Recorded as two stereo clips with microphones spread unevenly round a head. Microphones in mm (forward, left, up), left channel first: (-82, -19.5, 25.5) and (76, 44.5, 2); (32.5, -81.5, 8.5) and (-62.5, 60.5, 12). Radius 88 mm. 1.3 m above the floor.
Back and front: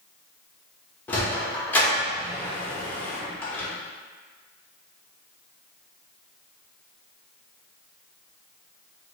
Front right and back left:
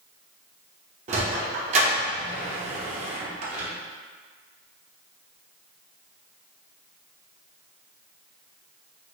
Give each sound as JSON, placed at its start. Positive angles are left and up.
{"t": 1.1, "sound": "a sliding door", "azimuth_deg": 135, "distance_m": 0.6}